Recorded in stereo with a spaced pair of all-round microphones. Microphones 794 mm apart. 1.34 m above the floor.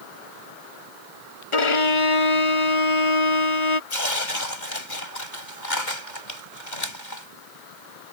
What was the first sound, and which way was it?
A violin, 40° left (ahead or behind).